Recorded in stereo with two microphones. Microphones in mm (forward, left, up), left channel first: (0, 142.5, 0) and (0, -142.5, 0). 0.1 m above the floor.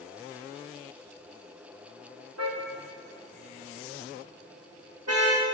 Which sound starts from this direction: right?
A car horn, at 2.4 s.